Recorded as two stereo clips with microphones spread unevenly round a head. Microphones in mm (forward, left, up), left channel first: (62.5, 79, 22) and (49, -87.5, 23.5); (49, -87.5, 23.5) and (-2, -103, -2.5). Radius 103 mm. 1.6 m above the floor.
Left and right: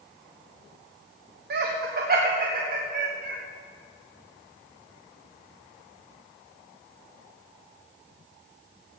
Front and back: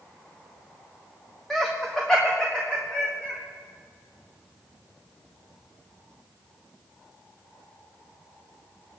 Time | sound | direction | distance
1.5 | laughter | 75° right | 1.3 m